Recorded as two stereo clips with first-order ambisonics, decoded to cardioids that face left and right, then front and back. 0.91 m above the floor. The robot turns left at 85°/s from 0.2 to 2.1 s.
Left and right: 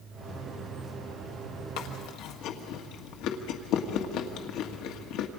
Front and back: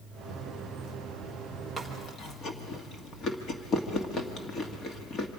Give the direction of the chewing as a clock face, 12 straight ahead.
9 o'clock.